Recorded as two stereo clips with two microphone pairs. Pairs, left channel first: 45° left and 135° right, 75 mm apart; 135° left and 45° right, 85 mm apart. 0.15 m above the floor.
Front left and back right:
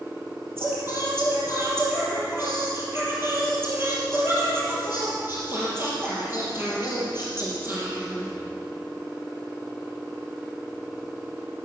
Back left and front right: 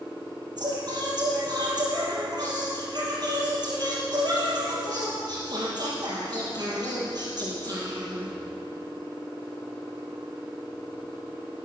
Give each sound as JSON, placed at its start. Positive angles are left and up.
{"t": 0.6, "sound": "singing", "azimuth_deg": -80, "distance_m": 4.0}